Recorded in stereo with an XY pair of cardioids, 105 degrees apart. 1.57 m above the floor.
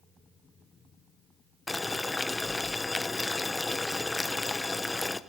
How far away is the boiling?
About 1.1 m.